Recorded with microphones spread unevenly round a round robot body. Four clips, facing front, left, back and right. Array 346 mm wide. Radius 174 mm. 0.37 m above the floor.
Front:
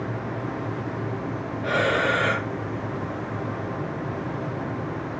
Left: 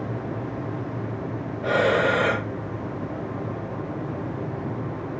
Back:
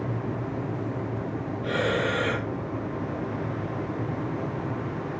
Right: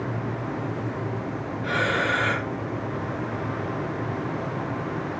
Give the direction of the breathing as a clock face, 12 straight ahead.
9 o'clock.